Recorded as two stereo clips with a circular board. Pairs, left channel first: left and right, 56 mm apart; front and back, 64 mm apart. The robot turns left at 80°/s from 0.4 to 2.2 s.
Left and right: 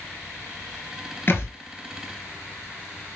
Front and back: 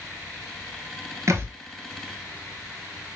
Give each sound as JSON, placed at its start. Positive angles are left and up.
{"t": 1.3, "sound": "a thud", "azimuth_deg": 140, "distance_m": 0.6}